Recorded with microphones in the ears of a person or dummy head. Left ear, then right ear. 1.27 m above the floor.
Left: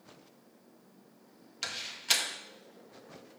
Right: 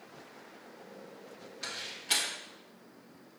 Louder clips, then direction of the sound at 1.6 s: Left 4 dB; 45° left (ahead or behind).